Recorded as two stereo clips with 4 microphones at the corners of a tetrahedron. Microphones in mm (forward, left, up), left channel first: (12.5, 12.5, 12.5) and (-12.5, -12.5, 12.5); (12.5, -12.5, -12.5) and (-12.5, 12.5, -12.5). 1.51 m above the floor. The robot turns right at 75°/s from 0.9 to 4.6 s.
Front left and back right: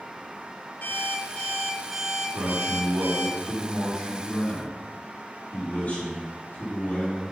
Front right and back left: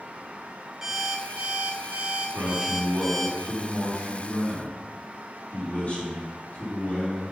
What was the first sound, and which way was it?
An alarm clock, 60° left.